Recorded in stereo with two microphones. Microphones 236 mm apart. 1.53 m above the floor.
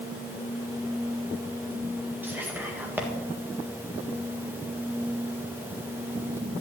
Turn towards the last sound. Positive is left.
turn(degrees=-10)  # may be behind; listen again after turning